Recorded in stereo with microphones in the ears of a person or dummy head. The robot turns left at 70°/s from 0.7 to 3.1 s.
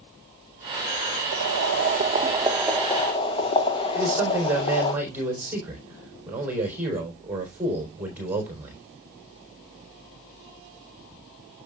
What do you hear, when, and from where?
1.3 s boiling: 85° right, 1.3 m; by 4.9 s 150° left, 1.3 m
3.9 s a man speaking: 10° right (ahead or behind), 3.5 m